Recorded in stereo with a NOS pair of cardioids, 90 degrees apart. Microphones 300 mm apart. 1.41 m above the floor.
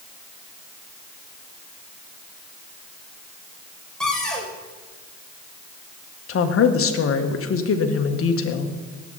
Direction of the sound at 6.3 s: 50° left.